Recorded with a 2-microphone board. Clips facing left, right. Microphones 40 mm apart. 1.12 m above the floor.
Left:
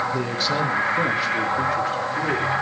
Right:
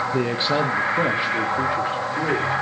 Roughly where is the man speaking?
Right.